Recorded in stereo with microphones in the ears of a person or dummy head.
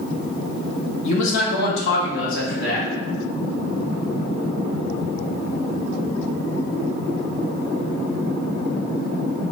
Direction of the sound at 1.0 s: 40° left (ahead or behind).